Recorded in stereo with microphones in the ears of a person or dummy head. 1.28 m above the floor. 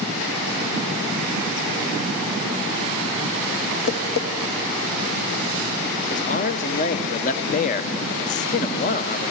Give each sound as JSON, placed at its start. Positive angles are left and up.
{"t": 3.9, "sound": "tapping", "side_deg": 60, "distance_m": 1.1}
{"t": 6.1, "sound": "a man speaking", "side_deg": 40, "distance_m": 0.6}